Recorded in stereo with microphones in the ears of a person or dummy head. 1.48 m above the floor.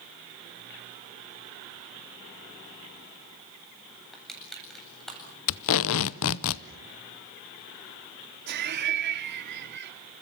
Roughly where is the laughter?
Right.